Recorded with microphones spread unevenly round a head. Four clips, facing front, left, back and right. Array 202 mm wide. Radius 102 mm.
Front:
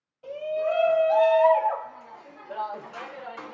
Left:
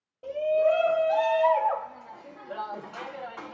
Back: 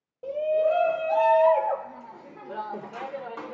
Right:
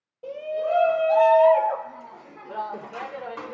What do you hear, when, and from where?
0.2 s a shout: 175° left, 1.7 m; by 3.5 s 130° right, 2 m